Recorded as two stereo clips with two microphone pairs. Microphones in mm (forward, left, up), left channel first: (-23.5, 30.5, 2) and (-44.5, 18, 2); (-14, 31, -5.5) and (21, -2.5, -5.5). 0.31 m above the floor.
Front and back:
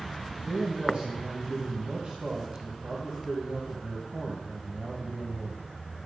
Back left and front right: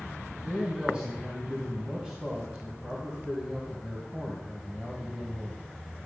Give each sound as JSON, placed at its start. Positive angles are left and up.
{"t": 0.4, "sound": "a man speaking", "azimuth_deg": -115, "distance_m": 2.5}